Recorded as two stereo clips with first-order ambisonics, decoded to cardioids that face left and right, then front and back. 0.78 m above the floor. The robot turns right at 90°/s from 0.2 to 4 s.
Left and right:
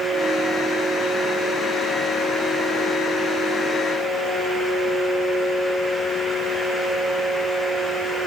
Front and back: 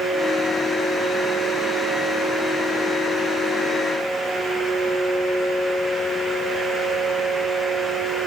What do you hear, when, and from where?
Only background noise.